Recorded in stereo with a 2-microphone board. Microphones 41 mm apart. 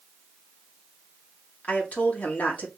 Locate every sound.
1.6 s a woman speaking: 35° left (ahead or behind), 1.8 m